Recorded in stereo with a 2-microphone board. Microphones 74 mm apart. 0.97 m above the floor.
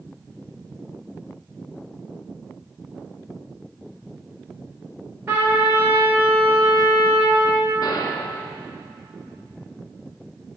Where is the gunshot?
60° left (ahead or behind), 1.4 m.